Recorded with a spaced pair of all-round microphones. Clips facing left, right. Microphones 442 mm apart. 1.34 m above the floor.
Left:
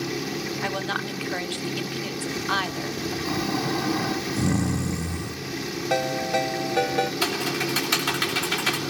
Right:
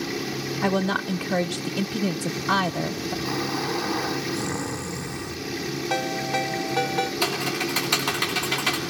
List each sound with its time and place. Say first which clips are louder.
0.6 s a woman speaking: right 6 dB; 55° right (ahead or behind), 0.7 m
3.2 s snoring: left 3 dB; 45° left (ahead or behind), 0.9 m
5.9 s a ringtone: left 2 dB; 15° right (ahead or behind), 0.9 m
7.2 s typing on a keyboard: even; 30° left (ahead or behind), 3 m